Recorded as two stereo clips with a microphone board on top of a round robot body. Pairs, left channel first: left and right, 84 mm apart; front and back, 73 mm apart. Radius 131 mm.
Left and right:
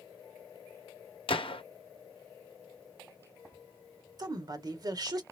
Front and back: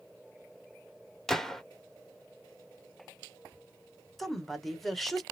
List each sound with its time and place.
1.3 s a gunshot: 85° left, 0.7 m
4.2 s a woman speaking: 85° right, 1.2 m